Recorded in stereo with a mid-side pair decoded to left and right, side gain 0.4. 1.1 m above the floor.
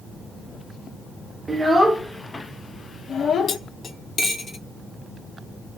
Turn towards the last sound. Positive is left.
turn(degrees=45)